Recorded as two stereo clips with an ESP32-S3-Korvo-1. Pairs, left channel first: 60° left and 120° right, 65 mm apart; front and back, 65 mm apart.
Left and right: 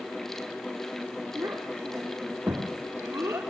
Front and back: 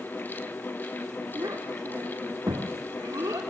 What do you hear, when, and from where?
1.4 s a child speaking: 170° right, 2.5 m